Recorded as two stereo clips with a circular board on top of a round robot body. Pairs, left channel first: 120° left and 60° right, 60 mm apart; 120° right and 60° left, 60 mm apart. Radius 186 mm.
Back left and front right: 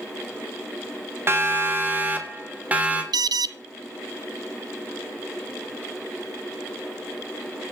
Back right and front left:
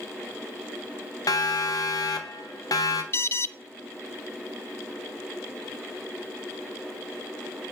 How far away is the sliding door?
I don't hear a sliding door.